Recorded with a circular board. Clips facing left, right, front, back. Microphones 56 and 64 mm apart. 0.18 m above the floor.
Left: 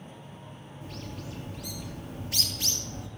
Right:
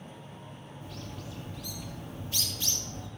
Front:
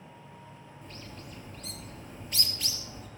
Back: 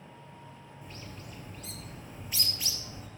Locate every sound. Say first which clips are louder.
0.8 s a bird: left 3 dB, even; 100° left, 2.5 m